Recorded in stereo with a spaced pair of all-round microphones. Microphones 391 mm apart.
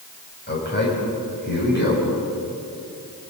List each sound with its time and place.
0.5 s a man speaking: 25° left (ahead or behind), 8 m